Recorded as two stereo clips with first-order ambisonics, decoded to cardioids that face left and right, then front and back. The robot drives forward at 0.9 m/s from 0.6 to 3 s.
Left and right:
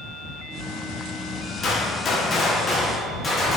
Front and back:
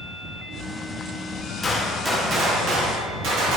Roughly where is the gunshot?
Ahead left.